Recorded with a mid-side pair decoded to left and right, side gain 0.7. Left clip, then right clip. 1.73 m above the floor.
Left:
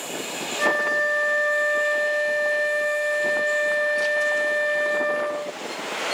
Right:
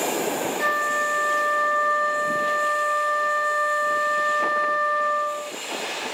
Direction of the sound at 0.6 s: 25° left.